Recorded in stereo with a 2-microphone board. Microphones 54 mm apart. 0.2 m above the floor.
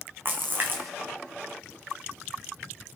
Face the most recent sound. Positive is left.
turn(degrees=-40)  # may be behind; listen again after turning